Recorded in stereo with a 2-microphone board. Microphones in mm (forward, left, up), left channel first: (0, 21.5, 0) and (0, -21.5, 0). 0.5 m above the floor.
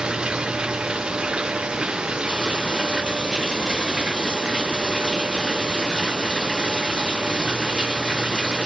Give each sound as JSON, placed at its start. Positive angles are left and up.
{"t": 0.0, "sound": "running water", "side_deg": -20}